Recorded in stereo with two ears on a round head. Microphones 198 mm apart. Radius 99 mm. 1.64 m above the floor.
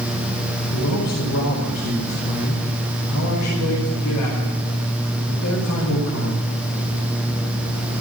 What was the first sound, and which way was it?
A man speaking, 75° left (ahead or behind).